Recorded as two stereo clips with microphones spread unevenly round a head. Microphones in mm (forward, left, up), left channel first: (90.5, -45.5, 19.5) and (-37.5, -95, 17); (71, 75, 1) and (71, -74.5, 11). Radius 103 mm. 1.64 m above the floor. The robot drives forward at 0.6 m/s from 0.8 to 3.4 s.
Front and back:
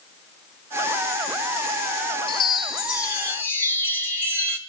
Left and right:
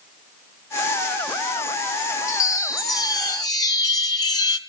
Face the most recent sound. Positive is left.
turn(degrees=70)